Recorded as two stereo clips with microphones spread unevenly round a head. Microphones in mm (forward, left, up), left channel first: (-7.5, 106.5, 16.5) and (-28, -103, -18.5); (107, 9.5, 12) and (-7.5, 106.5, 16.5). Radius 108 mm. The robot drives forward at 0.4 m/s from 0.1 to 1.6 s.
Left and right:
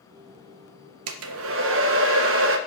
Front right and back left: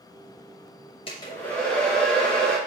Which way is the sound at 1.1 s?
110° right.